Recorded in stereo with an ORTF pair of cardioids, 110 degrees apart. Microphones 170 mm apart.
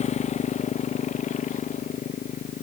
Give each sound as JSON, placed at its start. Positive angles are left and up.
{"t": 0.0, "sound": "a motorcycle", "azimuth_deg": 40}